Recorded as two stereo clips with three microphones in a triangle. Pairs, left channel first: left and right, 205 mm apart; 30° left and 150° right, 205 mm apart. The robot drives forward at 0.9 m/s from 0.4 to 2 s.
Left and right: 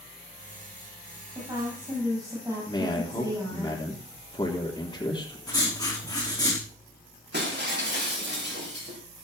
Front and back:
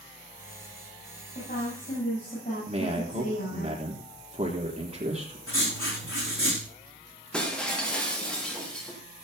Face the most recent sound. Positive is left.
turn(degrees=-55)